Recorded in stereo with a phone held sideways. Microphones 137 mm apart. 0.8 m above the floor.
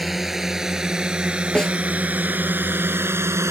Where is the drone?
Centre (ahead or behind); by 3.5 s 20° right (ahead or behind).